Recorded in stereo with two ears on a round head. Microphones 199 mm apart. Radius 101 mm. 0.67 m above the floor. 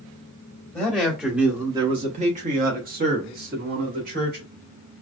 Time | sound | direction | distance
0.7 | a man speaking | 10° left (ahead or behind) | 0.9 m